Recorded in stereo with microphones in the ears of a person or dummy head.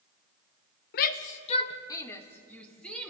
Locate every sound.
0.9 s a shout: 55° left (ahead or behind), 1.1 m; by 3.1 s 5° left (ahead or behind), 3 m